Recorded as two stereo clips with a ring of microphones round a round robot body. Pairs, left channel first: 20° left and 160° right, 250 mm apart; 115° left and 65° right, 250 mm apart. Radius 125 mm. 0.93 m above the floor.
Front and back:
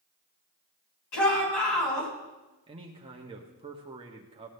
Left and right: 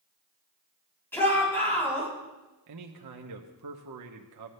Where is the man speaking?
90° right, 1.1 m.